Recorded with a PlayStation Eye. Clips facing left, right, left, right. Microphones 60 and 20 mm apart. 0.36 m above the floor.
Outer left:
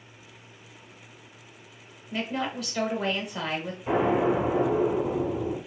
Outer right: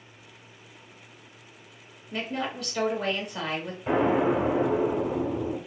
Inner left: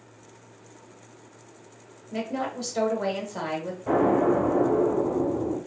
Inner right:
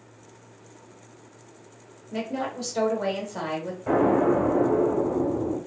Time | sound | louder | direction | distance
2.1 | a woman speaking | outer left 1 dB, even | centre (ahead or behind) | 0.9 m
3.9 | an explosion | even, inner right 1 dB | 30° right (ahead or behind) | 1.7 m